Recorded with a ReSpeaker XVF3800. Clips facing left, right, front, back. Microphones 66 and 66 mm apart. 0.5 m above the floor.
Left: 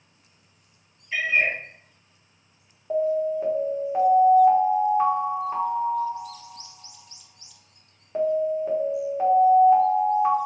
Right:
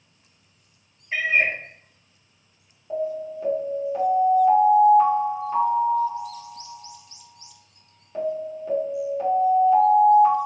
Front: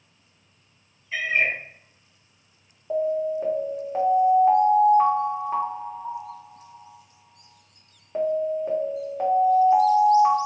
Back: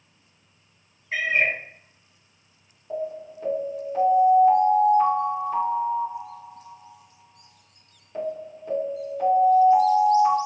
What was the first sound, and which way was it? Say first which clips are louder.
A cat meowing: right 1 dB, back 1 dB; 145° right.